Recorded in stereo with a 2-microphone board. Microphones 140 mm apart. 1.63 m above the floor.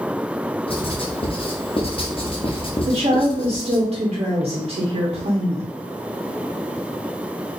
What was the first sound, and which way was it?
Writing, 40° left (ahead or behind).